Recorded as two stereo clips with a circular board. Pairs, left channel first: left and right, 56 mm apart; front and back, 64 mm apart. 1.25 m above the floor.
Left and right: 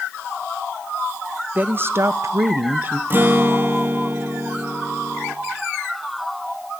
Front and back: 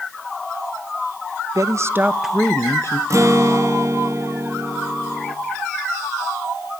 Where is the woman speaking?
150° right, 1.2 m; by 3.0 s 35° right, 1.1 m.